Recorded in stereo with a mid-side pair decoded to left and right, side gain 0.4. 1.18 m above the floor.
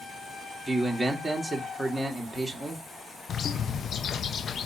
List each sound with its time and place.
0.7 s a man speaking: 15° right, 2.5 m
3.3 s a bird: 60° left, 0.7 m